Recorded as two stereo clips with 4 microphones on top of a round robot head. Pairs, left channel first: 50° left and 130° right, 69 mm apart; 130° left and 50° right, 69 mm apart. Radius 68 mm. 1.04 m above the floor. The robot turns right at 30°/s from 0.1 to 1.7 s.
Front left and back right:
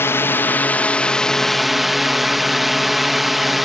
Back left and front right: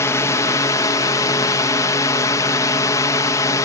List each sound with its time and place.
0.0 s a drone: 95° left; by 3.7 s 140° left